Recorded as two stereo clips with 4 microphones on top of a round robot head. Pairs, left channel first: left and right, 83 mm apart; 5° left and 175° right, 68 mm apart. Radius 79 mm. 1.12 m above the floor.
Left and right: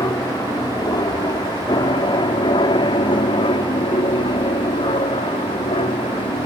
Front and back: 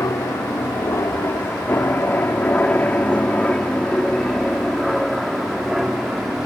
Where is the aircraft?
50° left; by 6.5 s 105° left.